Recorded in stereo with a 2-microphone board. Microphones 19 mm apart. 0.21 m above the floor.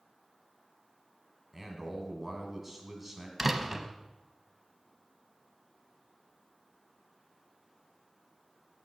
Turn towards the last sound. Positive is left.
turn(degrees=-10)  # may be behind; listen again after turning